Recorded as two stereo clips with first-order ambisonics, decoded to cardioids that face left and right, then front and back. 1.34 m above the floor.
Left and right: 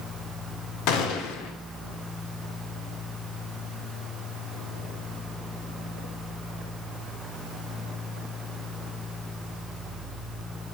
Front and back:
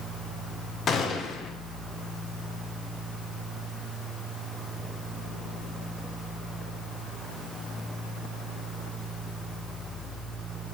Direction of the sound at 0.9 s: 65° left.